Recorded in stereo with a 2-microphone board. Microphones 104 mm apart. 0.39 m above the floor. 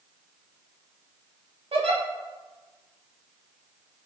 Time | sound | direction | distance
1.7 | a giggle | 85° right | 0.6 m